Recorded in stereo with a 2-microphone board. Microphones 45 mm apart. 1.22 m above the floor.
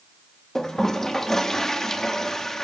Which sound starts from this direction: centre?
A toilet flushing, at 0.6 s.